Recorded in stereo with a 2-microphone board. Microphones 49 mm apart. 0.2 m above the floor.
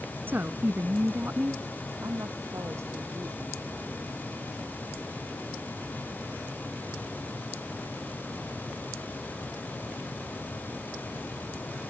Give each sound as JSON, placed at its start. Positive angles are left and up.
{"t": 0.3, "sound": "a woman speaking", "side_deg": -45}
{"t": 2.0, "sound": "a woman speaking", "side_deg": -85}